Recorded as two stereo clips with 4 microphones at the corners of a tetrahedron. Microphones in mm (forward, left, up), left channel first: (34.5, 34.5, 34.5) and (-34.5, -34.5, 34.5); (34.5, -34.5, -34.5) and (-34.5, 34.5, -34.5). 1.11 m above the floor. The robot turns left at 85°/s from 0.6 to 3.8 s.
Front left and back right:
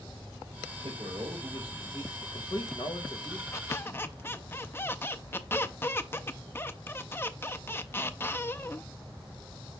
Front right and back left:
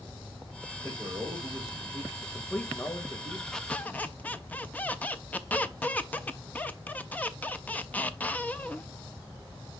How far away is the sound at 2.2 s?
About 1.6 m.